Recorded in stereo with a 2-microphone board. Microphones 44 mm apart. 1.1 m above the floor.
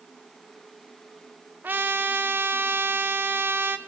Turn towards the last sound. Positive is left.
turn(degrees=-55)  # may be behind; listen again after turning